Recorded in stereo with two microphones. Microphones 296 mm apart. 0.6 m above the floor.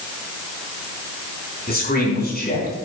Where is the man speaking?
30° left (ahead or behind), 5 m.